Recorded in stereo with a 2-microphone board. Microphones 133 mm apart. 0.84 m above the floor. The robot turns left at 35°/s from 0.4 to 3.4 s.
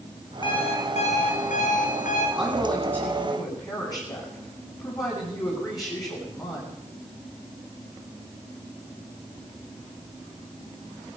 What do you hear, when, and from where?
0.4 s an alarm clock: 140° left, 5 m; by 2.3 s 75° left, 5 m
2.4 s a woman speaking: 170° right, 8 m; by 6.8 s 150° left, 8 m